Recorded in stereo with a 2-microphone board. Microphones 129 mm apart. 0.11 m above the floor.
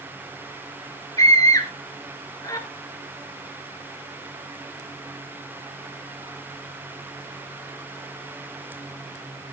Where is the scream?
25° left (ahead or behind), 1.3 m.